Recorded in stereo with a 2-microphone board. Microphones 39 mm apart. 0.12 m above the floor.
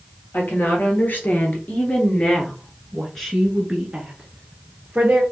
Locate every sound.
0.3 s a woman speaking: 55° left (ahead or behind), 2 m; by 5.2 s 35° right (ahead or behind), 1.9 m